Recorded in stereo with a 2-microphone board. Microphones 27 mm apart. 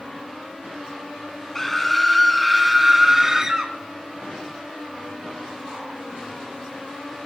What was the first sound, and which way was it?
A scream, 10° left (ahead or behind).